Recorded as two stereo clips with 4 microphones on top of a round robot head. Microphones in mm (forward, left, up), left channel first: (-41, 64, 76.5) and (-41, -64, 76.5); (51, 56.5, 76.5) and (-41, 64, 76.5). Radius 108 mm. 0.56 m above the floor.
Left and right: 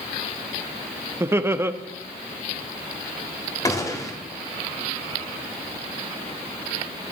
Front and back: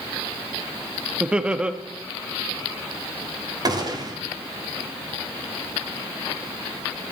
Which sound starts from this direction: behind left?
A gunshot, at 3.6 s.